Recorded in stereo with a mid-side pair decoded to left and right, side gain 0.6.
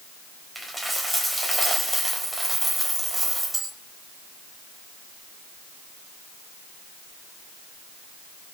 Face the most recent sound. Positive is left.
turn(degrees=-5)